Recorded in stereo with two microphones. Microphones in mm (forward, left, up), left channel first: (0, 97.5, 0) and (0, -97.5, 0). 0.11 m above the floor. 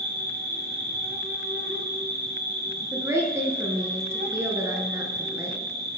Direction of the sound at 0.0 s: 65° right (ahead or behind).